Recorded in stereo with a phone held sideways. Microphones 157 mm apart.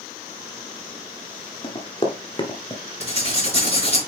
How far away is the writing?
About 4.5 m.